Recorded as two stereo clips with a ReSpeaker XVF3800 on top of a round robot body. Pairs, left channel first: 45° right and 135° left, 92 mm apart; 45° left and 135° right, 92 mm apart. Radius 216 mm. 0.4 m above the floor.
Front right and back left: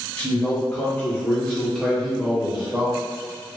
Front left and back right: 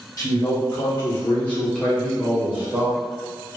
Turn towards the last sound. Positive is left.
turn(degrees=-165)